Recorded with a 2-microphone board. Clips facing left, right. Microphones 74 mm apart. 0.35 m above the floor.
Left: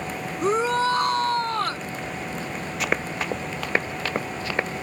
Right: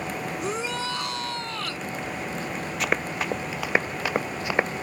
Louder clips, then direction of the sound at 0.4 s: Left 11 dB; 40° left (ahead or behind).